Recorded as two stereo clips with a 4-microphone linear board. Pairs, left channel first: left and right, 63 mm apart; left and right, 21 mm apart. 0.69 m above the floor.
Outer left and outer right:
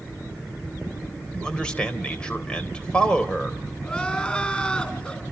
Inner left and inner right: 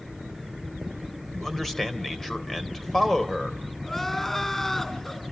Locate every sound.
1.3 s a man speaking: 15° left (ahead or behind), 3.5 m
3.8 s crying: 20° left (ahead or behind), 3.5 m